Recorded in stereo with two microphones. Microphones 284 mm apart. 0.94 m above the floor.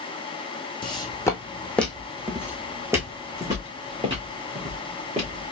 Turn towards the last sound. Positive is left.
turn(degrees=-25)  # may be behind; listen again after turning